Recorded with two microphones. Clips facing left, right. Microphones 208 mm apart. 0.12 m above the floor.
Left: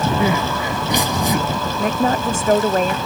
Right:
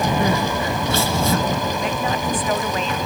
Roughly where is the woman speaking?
Left.